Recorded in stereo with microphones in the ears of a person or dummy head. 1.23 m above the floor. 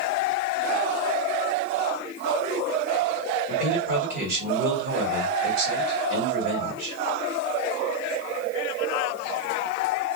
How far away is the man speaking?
About 1.8 m.